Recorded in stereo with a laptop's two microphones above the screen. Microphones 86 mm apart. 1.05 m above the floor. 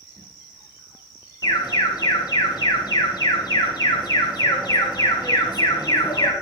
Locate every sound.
1.4 s an alarm: 55° left (ahead or behind), 1.4 m